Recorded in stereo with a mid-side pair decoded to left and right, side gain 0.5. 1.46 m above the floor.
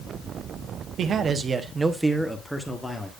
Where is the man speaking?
55° right, 1.0 m; by 3.1 s 15° left, 1.6 m.